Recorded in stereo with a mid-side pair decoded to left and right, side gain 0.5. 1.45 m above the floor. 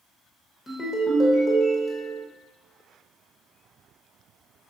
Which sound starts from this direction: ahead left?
A ringtone, at 0.7 s.